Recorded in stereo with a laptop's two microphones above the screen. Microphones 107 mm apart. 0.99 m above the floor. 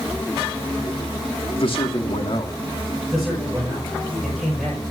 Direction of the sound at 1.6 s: 60° left (ahead or behind).